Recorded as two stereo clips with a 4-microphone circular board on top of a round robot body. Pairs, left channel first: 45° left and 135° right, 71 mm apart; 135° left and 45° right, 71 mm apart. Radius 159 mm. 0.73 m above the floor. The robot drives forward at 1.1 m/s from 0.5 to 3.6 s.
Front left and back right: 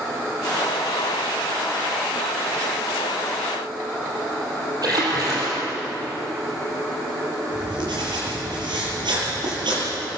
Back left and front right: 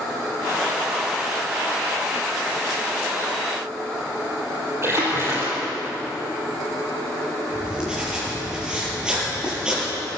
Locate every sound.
4.8 s a splash: 100° right, 7 m
7.5 s writing: 125° right, 8 m